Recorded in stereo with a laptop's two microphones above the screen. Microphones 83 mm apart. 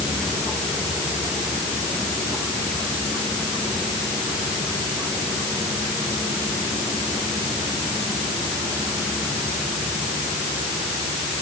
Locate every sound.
Only background noise.